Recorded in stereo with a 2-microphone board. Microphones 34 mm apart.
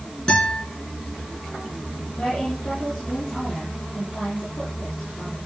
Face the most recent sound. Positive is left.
turn(degrees=55)  # may be behind; listen again after turning